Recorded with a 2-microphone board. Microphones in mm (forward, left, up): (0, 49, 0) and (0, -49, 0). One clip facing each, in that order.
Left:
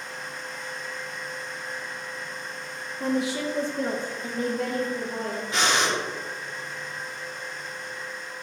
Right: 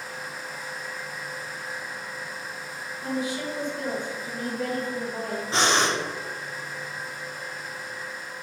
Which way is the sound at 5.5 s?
30° right (ahead or behind).